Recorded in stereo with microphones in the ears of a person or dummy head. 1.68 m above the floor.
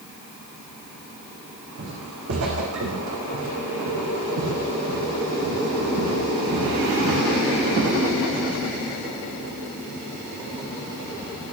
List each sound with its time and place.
1.8 s footsteps: 65° right (ahead or behind), 7 m; by 7.9 s 70° right (ahead or behind), 9.5 m